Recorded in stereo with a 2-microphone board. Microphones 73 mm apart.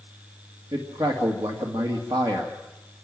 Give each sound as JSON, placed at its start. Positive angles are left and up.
{"t": 0.7, "sound": "a man speaking", "side_deg": -80, "distance_m": 2.0}